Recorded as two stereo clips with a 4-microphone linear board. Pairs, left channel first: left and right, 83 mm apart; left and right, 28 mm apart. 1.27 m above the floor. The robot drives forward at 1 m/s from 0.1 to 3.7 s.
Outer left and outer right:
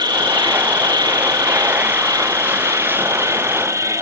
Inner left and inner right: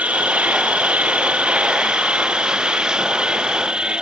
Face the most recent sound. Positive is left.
turn(degrees=-40)  # may be behind; listen again after turning